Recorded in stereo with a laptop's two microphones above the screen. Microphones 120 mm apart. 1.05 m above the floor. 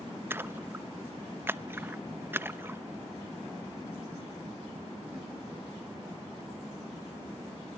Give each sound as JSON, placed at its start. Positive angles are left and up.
{"t": 0.3, "sound": "a splash", "side_deg": -20, "distance_m": 0.7}